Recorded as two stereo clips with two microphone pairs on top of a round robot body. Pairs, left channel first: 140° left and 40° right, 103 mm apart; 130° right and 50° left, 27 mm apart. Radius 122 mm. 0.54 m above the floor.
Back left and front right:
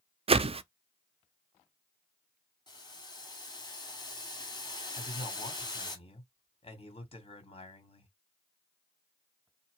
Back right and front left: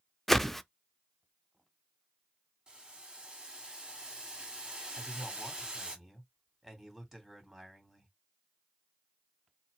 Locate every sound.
0.3 s a whoosh: 50° right, 0.5 m
2.7 s boiling: 105° left, 1.8 m
5.0 s a man speaking: 140° left, 2.5 m